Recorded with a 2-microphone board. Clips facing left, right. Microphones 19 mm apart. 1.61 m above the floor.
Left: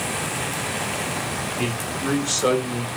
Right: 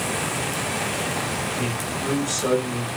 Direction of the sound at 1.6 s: 65° left (ahead or behind).